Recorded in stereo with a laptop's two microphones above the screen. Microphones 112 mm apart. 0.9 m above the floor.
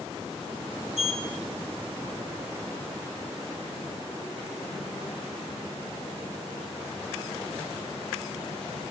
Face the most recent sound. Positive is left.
turn(degrees=75)  # may be behind; listen again after turning